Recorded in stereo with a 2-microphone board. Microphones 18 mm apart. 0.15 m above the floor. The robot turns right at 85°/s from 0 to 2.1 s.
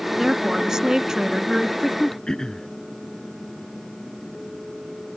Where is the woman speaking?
150° right; by 2.2 s 10° left.